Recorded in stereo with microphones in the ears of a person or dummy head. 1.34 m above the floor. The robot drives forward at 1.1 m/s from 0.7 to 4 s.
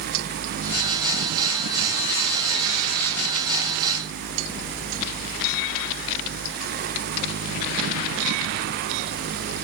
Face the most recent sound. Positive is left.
No sound to turn to.